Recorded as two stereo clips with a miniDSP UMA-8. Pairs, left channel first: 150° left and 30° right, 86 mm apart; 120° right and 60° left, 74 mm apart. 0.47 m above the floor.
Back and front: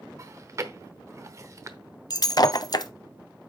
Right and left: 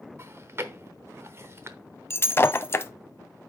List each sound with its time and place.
0.2 s chewing: 15° left, 0.9 m
2.1 s breaking glass: 175° right, 0.6 m